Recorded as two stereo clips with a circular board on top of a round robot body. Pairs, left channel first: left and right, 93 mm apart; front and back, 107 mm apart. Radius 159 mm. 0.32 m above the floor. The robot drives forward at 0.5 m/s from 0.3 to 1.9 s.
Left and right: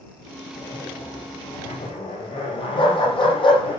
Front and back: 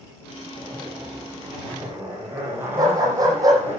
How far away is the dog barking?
About 8.5 m.